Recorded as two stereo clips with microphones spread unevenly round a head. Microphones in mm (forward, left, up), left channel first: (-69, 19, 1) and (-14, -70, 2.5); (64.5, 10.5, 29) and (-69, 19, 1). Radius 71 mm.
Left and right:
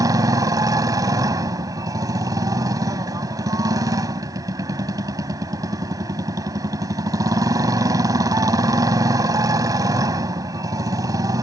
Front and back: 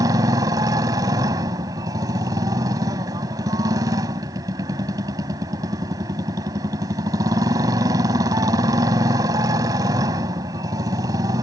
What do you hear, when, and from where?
0.0 s a motorcycle: 115° right